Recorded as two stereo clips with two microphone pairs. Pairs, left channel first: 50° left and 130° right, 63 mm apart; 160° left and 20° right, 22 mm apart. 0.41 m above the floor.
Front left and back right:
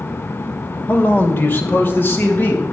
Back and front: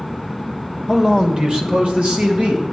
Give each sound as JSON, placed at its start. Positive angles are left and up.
{"t": 0.9, "sound": "a man speaking", "azimuth_deg": 45, "distance_m": 0.9}